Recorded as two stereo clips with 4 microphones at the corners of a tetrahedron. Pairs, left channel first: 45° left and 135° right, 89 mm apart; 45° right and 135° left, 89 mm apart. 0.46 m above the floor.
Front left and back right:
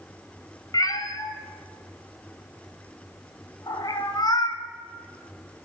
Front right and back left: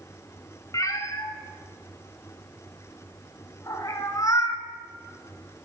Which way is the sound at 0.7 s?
5° left.